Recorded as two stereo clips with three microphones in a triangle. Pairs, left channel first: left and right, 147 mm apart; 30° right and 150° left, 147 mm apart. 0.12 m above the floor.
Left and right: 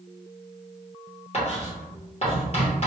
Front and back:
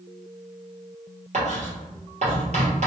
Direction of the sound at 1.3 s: 125° left.